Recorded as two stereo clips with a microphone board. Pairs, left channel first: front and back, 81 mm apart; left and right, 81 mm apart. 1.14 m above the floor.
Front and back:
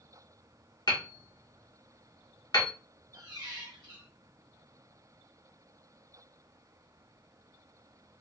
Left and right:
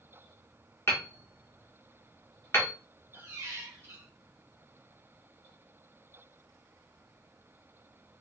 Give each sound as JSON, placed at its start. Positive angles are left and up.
{"t": 0.9, "sound": "hammering", "azimuth_deg": 30, "distance_m": 1.2}
{"t": 3.1, "sound": "a squeak", "azimuth_deg": -150, "distance_m": 1.2}